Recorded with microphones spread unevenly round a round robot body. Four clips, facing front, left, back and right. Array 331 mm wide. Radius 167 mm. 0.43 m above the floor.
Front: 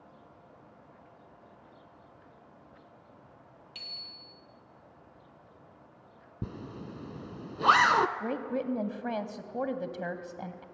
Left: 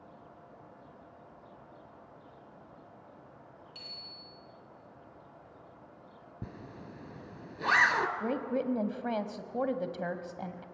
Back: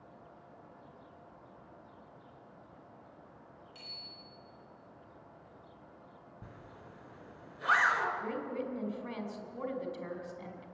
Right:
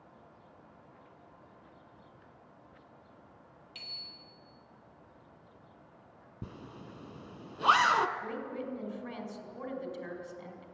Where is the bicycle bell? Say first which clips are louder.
Left 3 dB, even; 35° right, 8.5 m.